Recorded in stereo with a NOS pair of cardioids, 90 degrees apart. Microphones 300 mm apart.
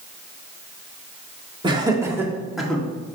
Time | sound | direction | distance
1.6 | laughter | 15° right | 2 m